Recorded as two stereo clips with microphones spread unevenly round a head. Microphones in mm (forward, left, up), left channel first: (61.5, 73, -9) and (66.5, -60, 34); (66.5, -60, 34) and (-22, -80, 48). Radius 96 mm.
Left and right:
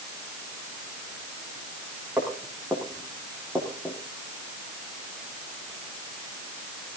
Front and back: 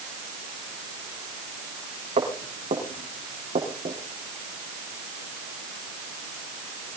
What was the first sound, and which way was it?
Footsteps, 165° right.